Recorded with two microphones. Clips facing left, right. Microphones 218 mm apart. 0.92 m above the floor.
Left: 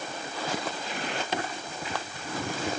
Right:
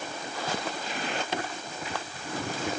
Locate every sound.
Only background noise.